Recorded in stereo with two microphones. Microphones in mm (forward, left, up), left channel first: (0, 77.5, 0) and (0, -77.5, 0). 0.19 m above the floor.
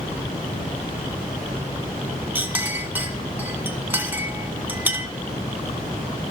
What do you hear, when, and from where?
2.4 s a clink: 10° right (ahead or behind), 1.3 m